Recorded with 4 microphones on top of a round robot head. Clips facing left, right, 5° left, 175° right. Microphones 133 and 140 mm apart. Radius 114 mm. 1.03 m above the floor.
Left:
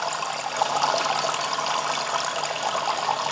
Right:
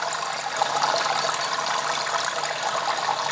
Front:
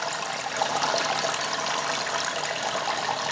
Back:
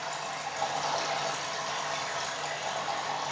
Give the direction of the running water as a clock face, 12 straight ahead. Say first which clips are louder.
Even, front 5 dB; 12 o'clock.